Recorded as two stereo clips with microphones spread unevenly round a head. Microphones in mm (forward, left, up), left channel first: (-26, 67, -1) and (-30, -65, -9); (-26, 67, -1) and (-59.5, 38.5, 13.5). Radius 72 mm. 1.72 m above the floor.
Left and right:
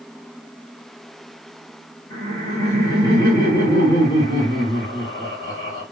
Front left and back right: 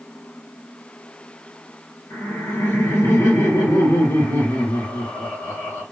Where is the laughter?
25° left, 1.5 m.